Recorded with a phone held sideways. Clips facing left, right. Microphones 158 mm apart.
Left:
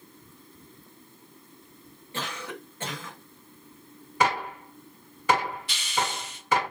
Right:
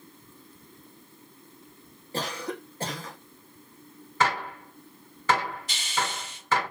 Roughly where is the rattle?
I don't hear a rattle.